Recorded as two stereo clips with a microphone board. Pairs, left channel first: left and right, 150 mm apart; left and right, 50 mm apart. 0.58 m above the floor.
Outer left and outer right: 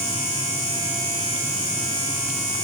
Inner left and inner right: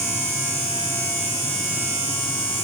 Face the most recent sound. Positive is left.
No sound to turn to.